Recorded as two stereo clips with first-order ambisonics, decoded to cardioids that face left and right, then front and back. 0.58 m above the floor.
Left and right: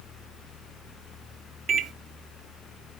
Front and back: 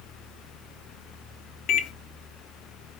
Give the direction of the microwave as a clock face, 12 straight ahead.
1 o'clock.